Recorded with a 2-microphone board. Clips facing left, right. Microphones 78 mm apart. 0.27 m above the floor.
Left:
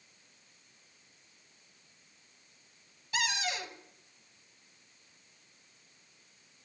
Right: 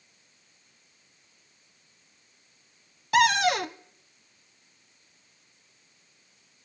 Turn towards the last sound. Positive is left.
turn(degrees=-65)  # may be behind; listen again after turning